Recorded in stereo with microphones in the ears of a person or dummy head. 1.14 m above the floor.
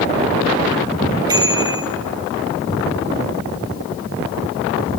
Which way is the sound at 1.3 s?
20° right (ahead or behind).